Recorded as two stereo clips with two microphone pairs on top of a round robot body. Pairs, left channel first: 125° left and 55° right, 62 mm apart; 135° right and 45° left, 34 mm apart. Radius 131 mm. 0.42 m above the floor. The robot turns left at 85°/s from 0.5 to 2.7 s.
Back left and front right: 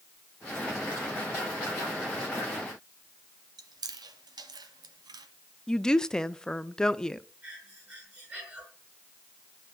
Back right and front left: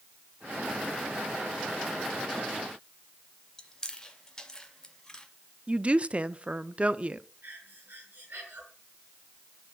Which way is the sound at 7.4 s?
10° left.